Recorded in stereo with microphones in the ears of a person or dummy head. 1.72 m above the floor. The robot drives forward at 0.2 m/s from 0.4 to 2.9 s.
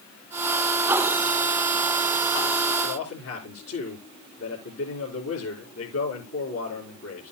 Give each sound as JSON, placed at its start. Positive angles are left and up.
{"t": 2.8, "sound": "a man speaking", "side_deg": 85, "distance_m": 3.5}